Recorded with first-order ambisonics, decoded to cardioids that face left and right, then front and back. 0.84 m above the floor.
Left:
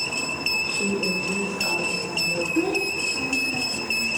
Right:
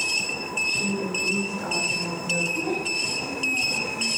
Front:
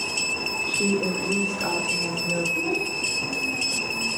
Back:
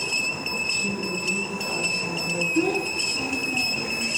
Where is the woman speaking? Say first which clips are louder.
Left 1 dB, front 2 dB; 15° left, 3 m; by 2.5 s 15° right, 4 m.